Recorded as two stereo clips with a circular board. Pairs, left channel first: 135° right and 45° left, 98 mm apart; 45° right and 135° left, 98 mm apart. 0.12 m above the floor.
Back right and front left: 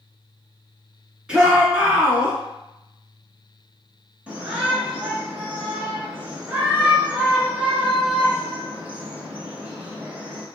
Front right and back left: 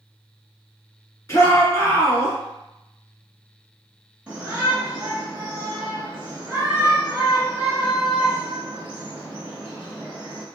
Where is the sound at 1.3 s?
25° right, 1.2 m.